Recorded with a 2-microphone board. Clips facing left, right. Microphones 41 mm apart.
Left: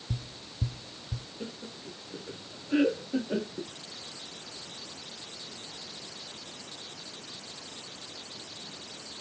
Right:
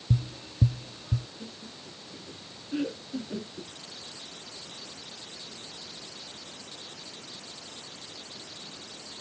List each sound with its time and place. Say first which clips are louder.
0.1 s tapping: right 9 dB; 60° right (ahead or behind)
1.4 s laughter: left 3 dB; 55° left (ahead or behind)